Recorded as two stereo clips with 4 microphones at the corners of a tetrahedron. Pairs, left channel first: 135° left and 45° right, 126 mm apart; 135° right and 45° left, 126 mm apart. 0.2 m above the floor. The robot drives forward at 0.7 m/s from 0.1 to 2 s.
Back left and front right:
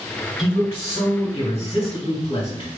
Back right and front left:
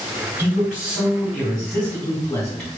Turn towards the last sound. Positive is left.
turn(degrees=150)